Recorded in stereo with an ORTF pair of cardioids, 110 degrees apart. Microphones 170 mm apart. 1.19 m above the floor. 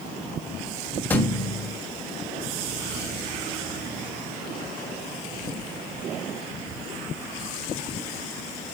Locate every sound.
1.1 s a thud: 10° left, 2.5 m